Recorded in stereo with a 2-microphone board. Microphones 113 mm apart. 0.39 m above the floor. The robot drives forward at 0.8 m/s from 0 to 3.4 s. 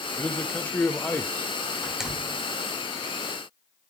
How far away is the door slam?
About 1.2 m.